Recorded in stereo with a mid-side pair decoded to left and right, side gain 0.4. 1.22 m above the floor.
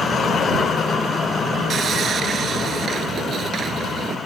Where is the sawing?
60° right.